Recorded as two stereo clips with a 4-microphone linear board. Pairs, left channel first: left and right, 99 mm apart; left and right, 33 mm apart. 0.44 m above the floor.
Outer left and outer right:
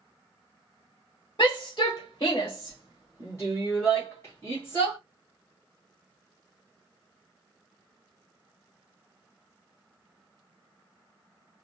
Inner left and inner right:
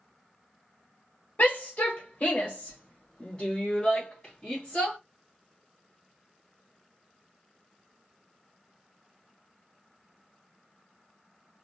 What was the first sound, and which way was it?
A shout, 45° left (ahead or behind).